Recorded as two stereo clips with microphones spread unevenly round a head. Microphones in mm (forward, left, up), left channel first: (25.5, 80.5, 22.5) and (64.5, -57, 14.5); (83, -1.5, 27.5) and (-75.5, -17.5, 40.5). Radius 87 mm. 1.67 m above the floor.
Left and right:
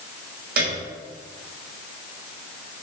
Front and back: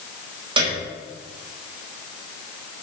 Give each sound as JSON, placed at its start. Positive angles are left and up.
{"t": 0.6, "sound": "a piano", "azimuth_deg": -115, "distance_m": 5.5}